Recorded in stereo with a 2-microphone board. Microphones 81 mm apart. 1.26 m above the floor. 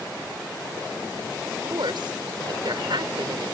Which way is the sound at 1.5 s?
80° right.